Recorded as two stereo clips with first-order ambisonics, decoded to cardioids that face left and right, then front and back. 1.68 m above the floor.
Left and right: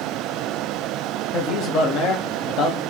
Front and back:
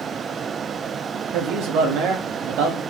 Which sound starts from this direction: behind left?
A man speaking, at 1.3 s.